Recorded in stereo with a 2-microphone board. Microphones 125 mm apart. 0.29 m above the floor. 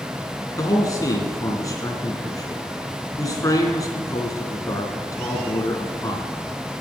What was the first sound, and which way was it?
A man speaking, 25° left (ahead or behind).